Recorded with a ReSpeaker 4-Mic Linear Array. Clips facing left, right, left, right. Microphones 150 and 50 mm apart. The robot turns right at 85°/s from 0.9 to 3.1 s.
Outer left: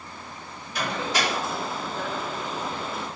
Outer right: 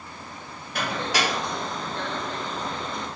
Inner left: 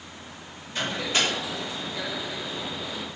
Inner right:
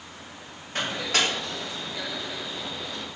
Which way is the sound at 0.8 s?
55° right (ahead or behind).